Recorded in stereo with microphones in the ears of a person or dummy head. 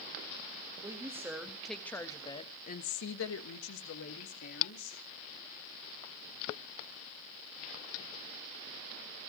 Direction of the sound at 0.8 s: 15° right (ahead or behind).